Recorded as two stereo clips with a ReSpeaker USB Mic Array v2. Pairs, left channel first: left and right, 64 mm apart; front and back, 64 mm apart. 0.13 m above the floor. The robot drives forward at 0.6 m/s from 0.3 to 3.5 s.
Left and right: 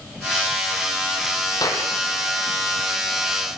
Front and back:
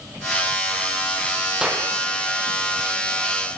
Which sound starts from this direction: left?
A clap, at 1.6 s.